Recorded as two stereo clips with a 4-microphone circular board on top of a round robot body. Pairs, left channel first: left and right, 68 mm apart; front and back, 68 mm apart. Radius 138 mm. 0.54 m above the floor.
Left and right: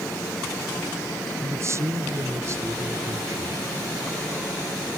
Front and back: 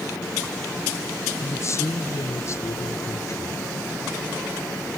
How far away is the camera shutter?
No camera shutter in this recording.